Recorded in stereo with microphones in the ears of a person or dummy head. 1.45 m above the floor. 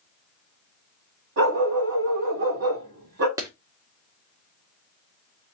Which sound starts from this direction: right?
A dog barking, at 1.4 s.